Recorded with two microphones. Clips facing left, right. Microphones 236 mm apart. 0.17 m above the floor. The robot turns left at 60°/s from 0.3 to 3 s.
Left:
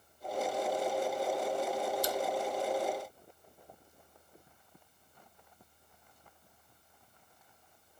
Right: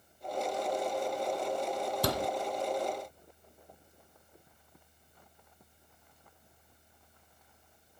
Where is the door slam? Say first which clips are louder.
Right 2 dB; 65° right (ahead or behind); by 2.3 s 75° right (ahead or behind).